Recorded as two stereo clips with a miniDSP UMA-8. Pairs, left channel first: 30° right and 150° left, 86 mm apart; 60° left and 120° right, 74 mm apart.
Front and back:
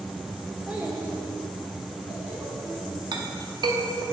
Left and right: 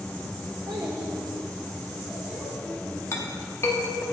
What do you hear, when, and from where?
0.7 s a child speaking: 130° right, 0.6 m; by 3.0 s 165° left, 2.5 m
3.1 s a clink: 115° left, 0.8 m